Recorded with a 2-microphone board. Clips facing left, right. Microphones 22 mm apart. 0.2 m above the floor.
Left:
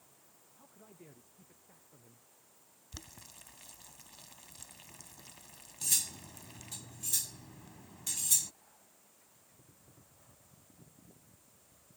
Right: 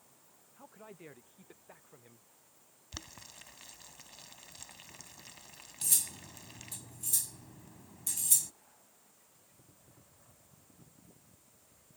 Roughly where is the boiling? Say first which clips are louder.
Right 4 dB; right.